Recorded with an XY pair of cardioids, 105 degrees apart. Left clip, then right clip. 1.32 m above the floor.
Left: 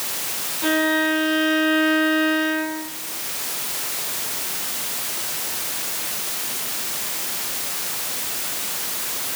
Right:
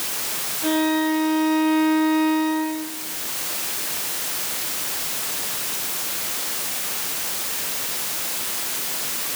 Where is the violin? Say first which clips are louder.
Left 2 dB; 45° left, 8 m.